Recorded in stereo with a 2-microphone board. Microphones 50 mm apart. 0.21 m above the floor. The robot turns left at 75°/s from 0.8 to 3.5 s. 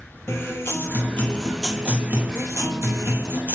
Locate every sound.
0.3 s a guitar: 60° left, 1.3 m; by 3.5 s 140° right, 1.3 m